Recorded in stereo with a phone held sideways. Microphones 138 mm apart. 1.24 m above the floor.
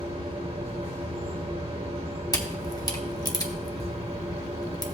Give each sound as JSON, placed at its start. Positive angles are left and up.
{"t": 0.0, "sound": "a machine running", "side_deg": -45, "distance_m": 1.6}
{"t": 2.3, "sound": "a camera shutter", "side_deg": 25, "distance_m": 1.1}